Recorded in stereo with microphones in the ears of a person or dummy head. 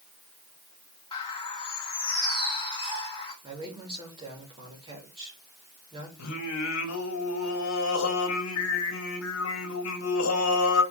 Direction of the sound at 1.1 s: 30° left (ahead or behind).